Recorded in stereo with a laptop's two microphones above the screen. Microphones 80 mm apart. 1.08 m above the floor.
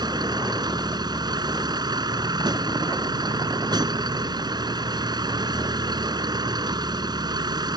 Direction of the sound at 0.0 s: 60° right (ahead or behind).